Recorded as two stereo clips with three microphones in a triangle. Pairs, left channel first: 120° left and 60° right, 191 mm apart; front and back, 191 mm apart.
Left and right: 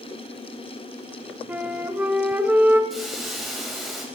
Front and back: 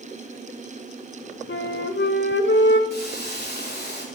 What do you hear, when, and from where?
1.5 s a flute: 20° left, 0.7 m
2.9 s a hiss: 30° left, 2 m